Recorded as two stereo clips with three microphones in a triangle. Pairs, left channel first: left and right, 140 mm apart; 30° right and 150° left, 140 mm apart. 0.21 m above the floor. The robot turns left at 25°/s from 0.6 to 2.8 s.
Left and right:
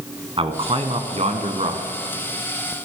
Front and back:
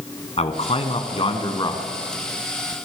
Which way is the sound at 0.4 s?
55° right.